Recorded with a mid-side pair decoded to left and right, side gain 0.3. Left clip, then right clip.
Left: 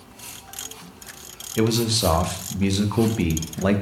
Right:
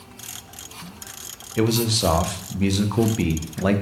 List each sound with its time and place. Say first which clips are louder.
1.6 s a man speaking: even; 5° right, 0.5 m